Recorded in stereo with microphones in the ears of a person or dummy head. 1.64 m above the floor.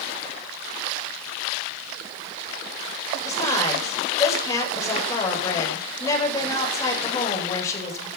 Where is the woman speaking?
15° left (ahead or behind), 8 m.